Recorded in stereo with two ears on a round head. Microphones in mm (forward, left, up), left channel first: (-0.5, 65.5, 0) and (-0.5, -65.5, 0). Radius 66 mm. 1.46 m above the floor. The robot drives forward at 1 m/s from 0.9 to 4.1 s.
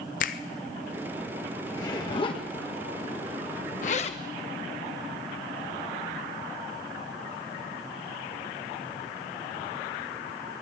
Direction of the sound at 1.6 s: 25° left (ahead or behind).